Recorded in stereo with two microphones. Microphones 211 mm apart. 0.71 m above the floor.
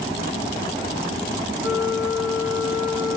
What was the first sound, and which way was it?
A flute, centre (ahead or behind).